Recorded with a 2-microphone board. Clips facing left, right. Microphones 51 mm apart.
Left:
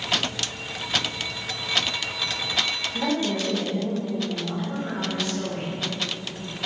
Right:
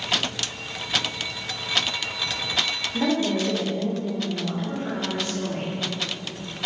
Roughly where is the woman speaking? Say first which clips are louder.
Right 3 dB; right.